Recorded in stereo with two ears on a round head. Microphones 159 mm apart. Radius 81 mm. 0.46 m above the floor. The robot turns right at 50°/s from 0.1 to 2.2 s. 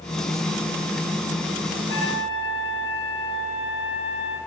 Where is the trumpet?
70° left (ahead or behind), 2.5 m; by 4.4 s 85° left, 2.5 m.